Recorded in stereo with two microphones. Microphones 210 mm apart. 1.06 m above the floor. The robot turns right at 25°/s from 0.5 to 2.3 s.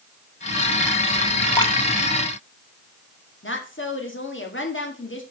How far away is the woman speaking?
About 1.9 m.